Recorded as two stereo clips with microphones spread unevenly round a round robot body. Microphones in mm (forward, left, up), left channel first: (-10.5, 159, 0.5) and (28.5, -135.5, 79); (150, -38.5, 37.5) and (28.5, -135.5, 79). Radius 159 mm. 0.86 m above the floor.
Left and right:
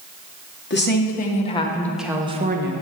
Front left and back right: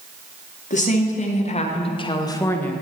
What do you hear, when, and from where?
0.7 s a woman speaking: 60° left, 2 m; by 2.8 s 35° right, 1.3 m